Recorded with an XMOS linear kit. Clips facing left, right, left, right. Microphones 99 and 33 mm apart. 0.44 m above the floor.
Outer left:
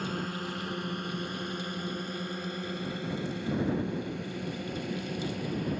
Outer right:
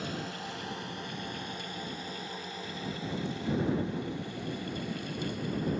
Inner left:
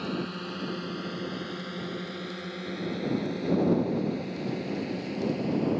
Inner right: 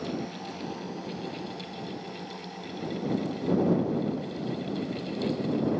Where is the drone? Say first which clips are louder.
Outer left 3 dB, inner left 1 dB; 50° left (ahead or behind); by 5.8 s 60° left (ahead or behind).